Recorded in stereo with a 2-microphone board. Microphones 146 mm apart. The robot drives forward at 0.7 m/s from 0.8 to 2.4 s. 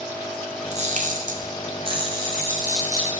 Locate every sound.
0.7 s a camera shutter: 50° right (ahead or behind), 0.5 m; by 3.1 s 25° right (ahead or behind), 1.0 m